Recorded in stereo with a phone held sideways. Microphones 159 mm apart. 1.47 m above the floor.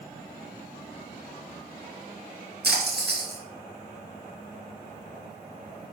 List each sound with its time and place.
2.6 s a splash: 85° right, 2.5 m